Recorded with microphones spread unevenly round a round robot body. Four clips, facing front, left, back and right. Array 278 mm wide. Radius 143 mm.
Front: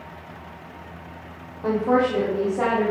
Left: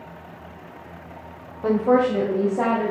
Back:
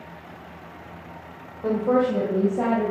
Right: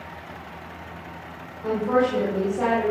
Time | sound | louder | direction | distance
1.6 | a woman speaking | left 3 dB, front 1 dB | 130° left | 1.9 m